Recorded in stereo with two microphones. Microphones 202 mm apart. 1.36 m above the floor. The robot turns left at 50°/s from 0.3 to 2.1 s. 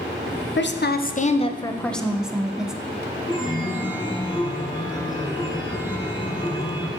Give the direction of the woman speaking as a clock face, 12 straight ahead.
10 o'clock.